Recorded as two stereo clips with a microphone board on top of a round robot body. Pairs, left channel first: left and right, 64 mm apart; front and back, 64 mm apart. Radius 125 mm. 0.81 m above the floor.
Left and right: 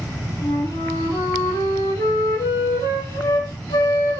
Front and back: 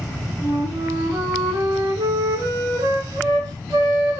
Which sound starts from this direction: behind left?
A flute, at 0.4 s.